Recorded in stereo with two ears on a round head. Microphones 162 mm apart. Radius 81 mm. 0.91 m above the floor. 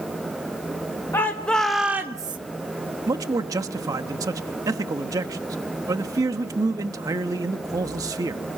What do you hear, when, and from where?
1.1 s a shout: 15° left (ahead or behind), 1.5 m; by 2.4 s 25° right (ahead or behind), 0.9 m
3.1 s a man speaking: 20° right (ahead or behind), 1.1 m